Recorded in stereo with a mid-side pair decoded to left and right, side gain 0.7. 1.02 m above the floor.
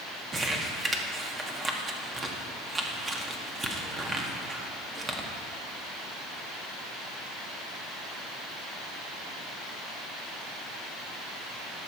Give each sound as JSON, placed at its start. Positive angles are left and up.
{"t": 0.3, "sound": "crumpling", "azimuth_deg": -20, "distance_m": 1.6}